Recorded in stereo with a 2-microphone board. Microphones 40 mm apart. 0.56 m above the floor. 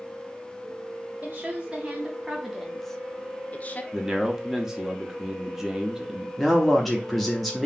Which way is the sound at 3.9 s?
10° right (ahead or behind).